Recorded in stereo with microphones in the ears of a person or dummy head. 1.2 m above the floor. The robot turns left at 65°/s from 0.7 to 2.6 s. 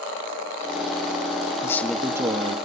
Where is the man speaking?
15° left, 1.4 m; by 2.6 s 45° right, 1.4 m.